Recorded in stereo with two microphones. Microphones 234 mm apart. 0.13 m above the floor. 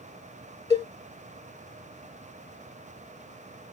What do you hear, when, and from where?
0.7 s a cowbell: 25° right (ahead or behind), 2.5 m